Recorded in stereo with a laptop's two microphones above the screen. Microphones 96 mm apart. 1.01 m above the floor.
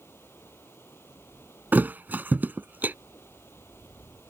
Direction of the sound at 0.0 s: 25° left (ahead or behind).